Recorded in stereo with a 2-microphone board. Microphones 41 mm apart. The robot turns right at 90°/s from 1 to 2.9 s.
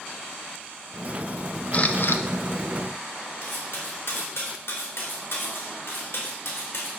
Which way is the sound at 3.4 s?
80° left.